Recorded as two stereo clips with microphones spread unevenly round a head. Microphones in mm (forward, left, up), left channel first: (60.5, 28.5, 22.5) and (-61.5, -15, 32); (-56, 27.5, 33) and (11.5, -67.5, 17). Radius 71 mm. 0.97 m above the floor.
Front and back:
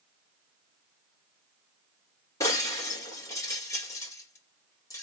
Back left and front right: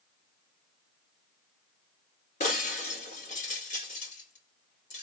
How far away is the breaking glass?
About 2.5 m.